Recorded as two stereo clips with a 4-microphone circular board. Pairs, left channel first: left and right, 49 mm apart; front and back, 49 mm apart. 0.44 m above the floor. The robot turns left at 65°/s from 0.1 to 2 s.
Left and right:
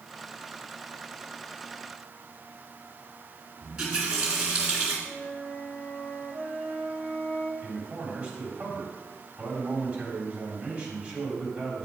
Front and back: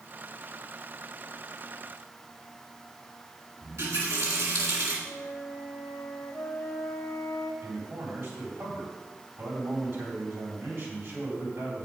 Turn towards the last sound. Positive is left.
turn(degrees=-160)